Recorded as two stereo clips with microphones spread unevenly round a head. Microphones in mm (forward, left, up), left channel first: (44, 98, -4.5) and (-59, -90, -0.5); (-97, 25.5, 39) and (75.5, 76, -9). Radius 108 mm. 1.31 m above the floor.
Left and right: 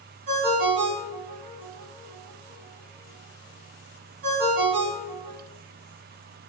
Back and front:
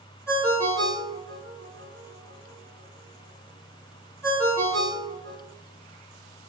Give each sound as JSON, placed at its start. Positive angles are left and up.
{"t": 0.3, "sound": "a ringtone", "azimuth_deg": -85, "distance_m": 1.3}